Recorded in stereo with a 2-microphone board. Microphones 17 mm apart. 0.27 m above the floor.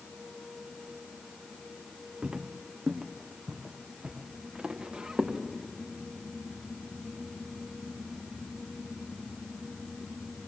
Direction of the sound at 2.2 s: 75° right (ahead or behind).